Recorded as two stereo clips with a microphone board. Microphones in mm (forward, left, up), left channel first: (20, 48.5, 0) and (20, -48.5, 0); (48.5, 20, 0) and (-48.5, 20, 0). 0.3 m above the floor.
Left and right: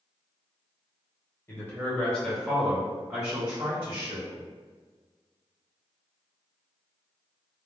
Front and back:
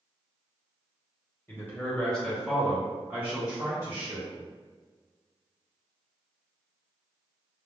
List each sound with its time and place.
1.5 s a man speaking: 50° left, 1.2 m; by 4.4 s 135° right, 1.6 m